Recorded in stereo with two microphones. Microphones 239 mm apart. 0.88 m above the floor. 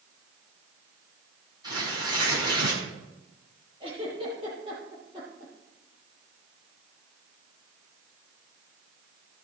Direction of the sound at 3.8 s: 20° right (ahead or behind).